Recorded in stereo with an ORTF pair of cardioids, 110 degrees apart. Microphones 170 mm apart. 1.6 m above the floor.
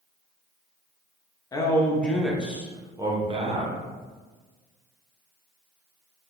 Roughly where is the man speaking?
Ahead.